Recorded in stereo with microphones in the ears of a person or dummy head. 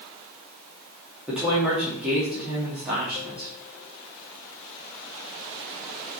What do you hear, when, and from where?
1.3 s a woman speaking: 5° right (ahead or behind), 2.5 m